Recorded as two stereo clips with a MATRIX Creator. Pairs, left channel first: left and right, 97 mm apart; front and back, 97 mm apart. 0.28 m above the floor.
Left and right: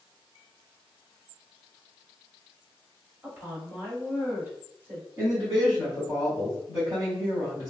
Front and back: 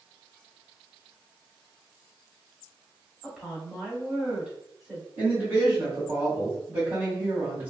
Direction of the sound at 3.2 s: 110° right.